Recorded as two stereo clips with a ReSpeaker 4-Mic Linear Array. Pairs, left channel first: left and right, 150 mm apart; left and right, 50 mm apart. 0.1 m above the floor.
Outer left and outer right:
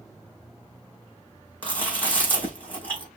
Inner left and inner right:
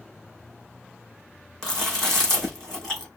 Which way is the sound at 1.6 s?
10° left (ahead or behind).